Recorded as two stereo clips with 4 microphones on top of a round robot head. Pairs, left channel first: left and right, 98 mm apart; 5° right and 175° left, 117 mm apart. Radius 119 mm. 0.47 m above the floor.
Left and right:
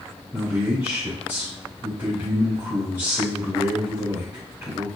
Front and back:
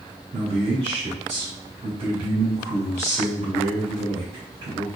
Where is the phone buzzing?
I don't hear a phone buzzing.